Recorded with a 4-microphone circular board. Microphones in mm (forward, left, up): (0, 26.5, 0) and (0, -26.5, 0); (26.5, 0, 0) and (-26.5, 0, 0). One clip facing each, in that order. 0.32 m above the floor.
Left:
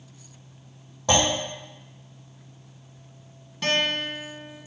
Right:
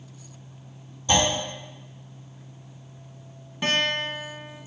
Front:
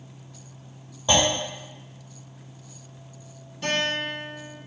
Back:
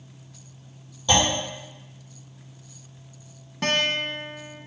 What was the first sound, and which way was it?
A clunk, 70° left.